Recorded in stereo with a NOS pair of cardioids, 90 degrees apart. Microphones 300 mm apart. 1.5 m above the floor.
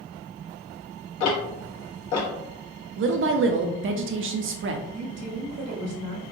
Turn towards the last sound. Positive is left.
turn(degrees=-55)